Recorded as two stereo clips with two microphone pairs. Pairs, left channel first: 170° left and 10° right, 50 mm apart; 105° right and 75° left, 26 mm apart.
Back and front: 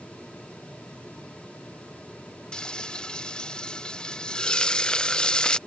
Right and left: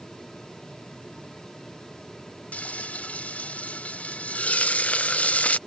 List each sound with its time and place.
2.5 s frying: 115° right